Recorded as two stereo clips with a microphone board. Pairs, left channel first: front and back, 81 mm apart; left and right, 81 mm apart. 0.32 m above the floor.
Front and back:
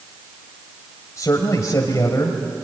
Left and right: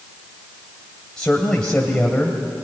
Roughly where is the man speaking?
Ahead.